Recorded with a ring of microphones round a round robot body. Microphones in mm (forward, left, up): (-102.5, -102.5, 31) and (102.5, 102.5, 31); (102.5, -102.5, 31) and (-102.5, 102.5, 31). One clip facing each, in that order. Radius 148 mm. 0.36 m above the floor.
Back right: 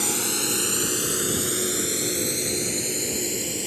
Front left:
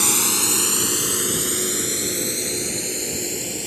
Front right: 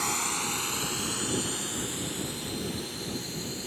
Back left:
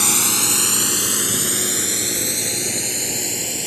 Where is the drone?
115° left; by 3.7 s 140° left.